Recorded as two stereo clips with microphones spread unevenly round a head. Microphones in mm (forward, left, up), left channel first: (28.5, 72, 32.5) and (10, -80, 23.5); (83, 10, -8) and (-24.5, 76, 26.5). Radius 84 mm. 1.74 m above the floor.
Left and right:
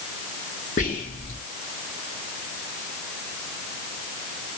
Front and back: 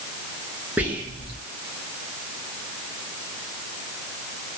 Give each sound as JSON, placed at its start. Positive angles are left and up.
{"t": 0.8, "sound": "whispering", "azimuth_deg": 90, "distance_m": 0.8}